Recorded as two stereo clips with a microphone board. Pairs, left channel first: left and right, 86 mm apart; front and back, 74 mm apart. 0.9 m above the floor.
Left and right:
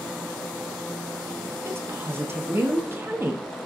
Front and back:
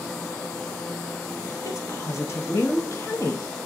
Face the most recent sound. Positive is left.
turn(degrees=-35)